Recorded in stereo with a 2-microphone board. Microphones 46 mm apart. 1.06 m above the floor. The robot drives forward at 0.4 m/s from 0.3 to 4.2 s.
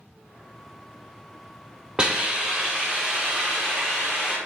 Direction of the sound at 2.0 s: 15° right (ahead or behind).